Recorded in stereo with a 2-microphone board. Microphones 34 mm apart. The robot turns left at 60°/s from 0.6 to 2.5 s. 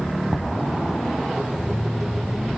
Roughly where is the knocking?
Centre.